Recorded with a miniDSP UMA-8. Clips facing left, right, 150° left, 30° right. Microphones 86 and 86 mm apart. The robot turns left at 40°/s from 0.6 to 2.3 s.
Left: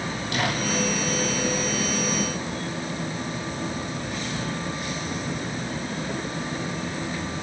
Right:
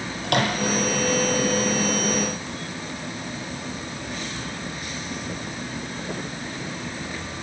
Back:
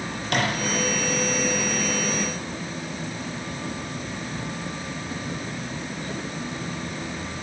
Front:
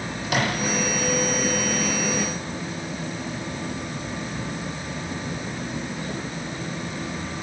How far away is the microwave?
About 9.5 m.